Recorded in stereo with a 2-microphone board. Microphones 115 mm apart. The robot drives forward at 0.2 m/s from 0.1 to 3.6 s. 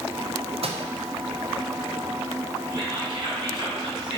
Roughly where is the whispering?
Right.